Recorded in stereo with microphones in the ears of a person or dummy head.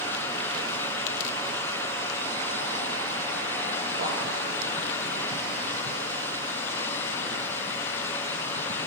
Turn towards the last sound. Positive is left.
turn(degrees=-50)  # may be behind; listen again after turning